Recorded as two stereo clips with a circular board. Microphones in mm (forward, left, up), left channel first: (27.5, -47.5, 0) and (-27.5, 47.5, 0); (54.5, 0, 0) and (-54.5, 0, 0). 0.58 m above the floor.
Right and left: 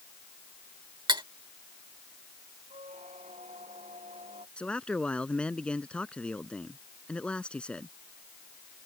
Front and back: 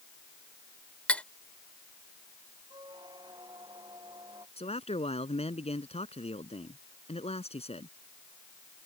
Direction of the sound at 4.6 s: 20° left.